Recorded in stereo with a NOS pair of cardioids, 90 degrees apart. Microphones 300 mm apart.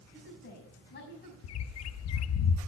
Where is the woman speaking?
40° left, 6 m.